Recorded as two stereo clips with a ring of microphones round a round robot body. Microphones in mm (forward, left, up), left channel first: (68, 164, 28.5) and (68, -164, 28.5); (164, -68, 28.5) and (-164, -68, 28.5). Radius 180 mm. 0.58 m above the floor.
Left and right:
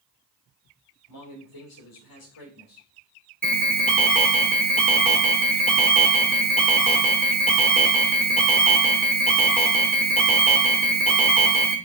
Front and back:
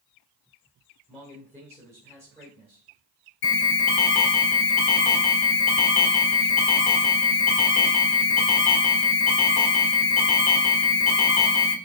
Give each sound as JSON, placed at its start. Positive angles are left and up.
{"t": 1.1, "sound": "a man speaking", "azimuth_deg": 85, "distance_m": 3.0}
{"t": 3.4, "sound": "an alarm", "azimuth_deg": 5, "distance_m": 1.5}